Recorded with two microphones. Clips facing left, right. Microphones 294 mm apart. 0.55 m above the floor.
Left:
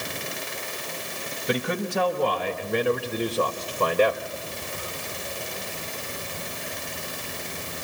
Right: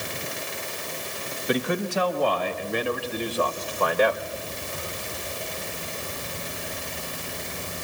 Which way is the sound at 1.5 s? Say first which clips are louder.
Right 1 dB; 70° left (ahead or behind).